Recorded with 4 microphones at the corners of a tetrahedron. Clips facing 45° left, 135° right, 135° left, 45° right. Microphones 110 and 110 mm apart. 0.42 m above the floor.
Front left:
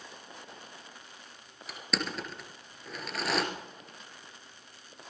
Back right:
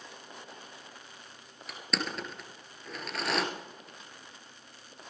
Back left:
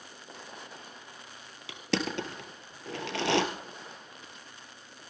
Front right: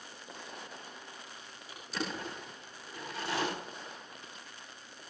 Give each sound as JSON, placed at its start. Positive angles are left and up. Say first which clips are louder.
{"t": 1.7, "sound": "crushing", "louder": "even, back left 7 dB", "azimuth_deg": 135, "distance_m": 2.5}